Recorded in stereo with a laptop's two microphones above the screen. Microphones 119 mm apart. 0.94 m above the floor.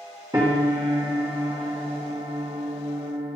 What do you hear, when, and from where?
0.3 s a piano: 30° right (ahead or behind), 4.5 m